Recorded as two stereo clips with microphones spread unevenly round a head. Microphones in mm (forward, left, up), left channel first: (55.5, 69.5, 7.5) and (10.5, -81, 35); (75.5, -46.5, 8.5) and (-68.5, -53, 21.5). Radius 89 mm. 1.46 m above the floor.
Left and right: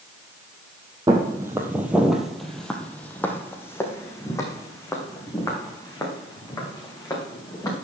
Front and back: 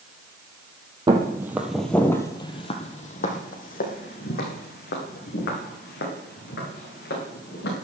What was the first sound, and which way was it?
Footsteps, 150° right.